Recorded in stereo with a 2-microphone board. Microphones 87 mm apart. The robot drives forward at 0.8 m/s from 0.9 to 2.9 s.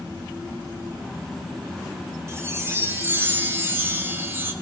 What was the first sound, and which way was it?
A chime, 30° right (ahead or behind).